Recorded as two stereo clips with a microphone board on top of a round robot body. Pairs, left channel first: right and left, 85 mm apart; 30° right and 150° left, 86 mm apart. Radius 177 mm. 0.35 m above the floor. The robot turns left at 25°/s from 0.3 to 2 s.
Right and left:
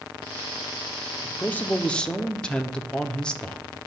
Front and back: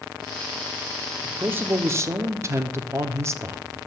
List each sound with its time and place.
1.2 s a man speaking: 150° right, 1.2 m; by 3.8 s 165° right, 1.2 m